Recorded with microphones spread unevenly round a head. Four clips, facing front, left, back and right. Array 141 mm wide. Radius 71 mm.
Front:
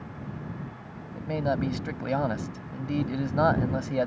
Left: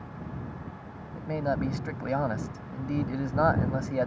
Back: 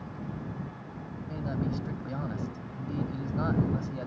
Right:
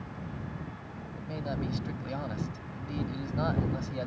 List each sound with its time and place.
1.1 s a man speaking: 25° left